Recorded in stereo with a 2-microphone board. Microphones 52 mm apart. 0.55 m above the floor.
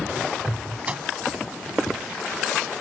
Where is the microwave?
25° right (ahead or behind).